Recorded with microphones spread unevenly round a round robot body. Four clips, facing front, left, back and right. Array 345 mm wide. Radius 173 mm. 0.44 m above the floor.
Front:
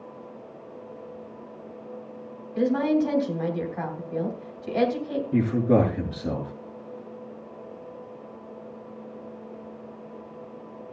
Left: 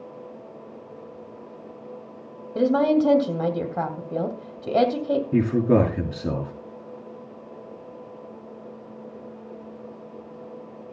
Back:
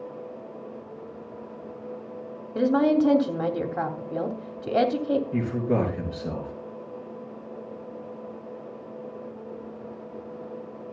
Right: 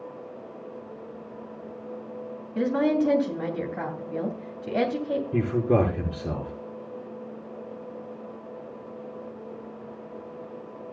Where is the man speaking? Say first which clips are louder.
Left 3 dB, front 4 dB; 75° left, 6 m.